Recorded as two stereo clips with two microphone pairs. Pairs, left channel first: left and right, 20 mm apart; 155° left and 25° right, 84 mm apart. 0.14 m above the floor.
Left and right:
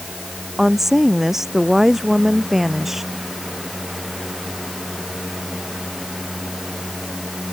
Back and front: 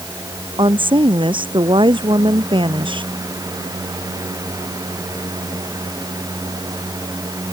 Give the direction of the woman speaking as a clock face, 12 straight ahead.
1 o'clock.